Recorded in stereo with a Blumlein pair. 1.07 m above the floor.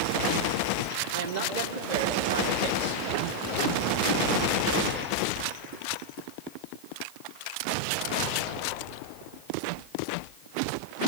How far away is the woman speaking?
About 3 m.